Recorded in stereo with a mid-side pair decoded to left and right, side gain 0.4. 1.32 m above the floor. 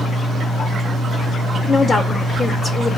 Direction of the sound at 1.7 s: 40° left.